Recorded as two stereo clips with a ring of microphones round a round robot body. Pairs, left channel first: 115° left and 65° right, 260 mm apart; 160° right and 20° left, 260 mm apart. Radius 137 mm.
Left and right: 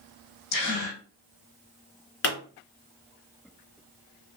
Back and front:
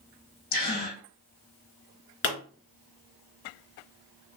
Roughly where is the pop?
Behind left.